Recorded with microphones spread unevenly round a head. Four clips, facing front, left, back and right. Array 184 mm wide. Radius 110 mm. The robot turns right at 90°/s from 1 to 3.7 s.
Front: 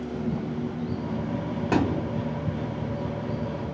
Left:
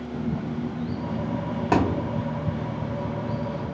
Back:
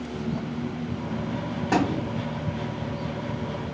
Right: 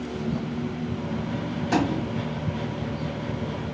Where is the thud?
60° left, 1.3 m; by 2.1 s 95° left, 1.3 m.